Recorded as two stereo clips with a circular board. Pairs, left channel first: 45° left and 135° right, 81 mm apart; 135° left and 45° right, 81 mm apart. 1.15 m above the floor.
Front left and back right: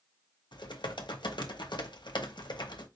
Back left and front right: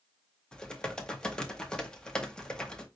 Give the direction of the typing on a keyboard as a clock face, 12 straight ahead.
10 o'clock.